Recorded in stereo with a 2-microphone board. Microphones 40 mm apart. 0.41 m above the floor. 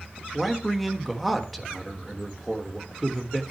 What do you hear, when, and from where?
0.3 s a man speaking: centre (ahead or behind), 1.3 m